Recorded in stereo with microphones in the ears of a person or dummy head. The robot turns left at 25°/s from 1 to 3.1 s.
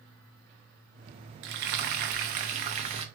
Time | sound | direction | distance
1.4 | frying | 95° right | 0.6 m